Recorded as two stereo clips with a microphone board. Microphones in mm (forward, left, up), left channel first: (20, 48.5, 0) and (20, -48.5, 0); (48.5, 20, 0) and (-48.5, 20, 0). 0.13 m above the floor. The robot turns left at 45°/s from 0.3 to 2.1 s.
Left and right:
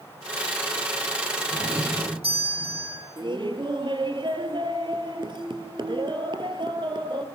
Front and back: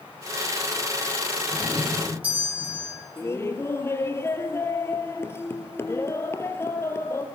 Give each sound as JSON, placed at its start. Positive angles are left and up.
{"t": 1.5, "sound": "a doorbell", "azimuth_deg": -80, "distance_m": 8.0}
{"t": 3.2, "sound": "laughter", "azimuth_deg": -60, "distance_m": 2.5}